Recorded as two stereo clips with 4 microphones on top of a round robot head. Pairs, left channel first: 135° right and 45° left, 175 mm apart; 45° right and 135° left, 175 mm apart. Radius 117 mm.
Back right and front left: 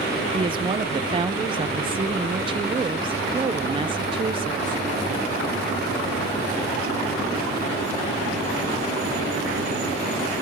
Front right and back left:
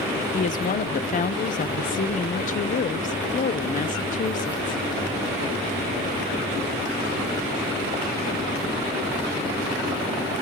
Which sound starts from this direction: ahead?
A woman speaking, at 0.3 s.